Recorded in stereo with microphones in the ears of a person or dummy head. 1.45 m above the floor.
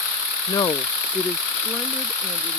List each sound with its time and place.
0.5 s a woman speaking: 20° left (ahead or behind); by 2.6 s 15° right (ahead or behind)